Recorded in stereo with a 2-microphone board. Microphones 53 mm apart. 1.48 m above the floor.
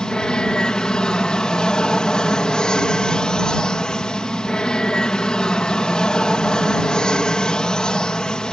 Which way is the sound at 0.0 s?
15° left (ahead or behind).